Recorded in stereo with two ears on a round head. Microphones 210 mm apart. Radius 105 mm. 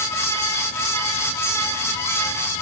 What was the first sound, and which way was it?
Only background noise.